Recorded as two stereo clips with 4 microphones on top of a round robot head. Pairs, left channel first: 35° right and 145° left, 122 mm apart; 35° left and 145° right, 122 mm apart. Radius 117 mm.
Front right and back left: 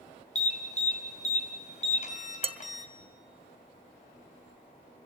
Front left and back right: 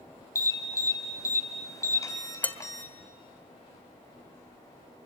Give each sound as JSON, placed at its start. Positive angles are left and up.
{"t": 0.3, "sound": "an alarm", "azimuth_deg": -25, "distance_m": 4.0}
{"t": 2.4, "sound": "dishes clattering", "azimuth_deg": 115, "distance_m": 1.3}